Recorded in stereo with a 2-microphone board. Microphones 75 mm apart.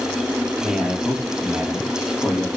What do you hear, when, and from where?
0.6 s a man speaking: 5° right (ahead or behind), 4.5 m